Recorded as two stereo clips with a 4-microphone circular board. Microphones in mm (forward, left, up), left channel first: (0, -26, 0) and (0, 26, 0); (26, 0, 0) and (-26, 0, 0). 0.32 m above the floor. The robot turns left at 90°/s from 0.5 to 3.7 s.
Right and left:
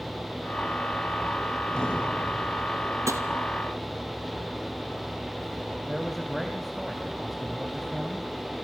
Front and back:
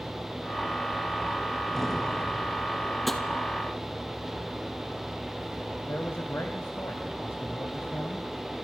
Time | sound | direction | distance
3.1 | tapping | 90° left | 1.9 m
5.8 | a man speaking | straight ahead | 2 m